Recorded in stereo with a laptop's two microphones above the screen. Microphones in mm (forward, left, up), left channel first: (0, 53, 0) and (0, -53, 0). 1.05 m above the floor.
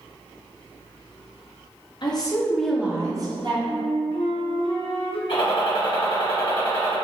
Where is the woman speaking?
45° left (ahead or behind), 0.6 m; by 3.5 s 45° right (ahead or behind), 0.8 m.